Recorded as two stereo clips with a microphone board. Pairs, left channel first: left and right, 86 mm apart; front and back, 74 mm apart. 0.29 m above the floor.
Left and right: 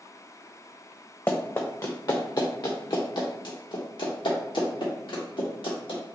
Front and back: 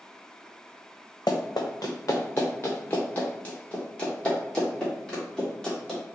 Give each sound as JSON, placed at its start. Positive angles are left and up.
{"t": 1.3, "sound": "running footsteps", "azimuth_deg": 25, "distance_m": 1.2}